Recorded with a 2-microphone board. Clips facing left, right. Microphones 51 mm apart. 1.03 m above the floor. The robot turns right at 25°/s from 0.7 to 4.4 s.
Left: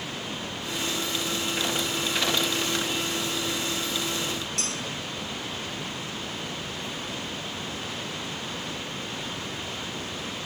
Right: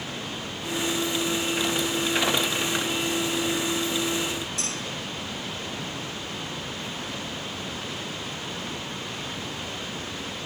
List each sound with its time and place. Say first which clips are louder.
4.6 s dishes clattering: even; 60° left (ahead or behind), 8 m